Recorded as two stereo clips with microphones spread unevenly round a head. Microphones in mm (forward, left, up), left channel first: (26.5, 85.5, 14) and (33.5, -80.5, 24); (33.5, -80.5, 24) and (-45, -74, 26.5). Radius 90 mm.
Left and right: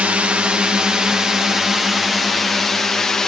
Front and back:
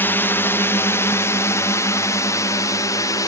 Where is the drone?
10° right; by 3.3 s 10° left.